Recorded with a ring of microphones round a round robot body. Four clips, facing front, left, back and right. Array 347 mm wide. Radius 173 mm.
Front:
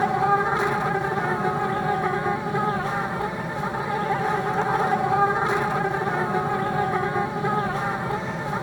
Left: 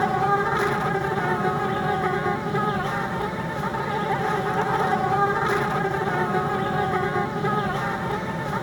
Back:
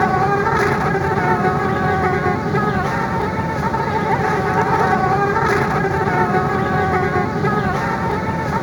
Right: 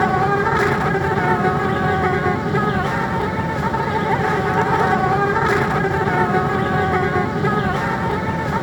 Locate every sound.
0.0 s an insect: 140° right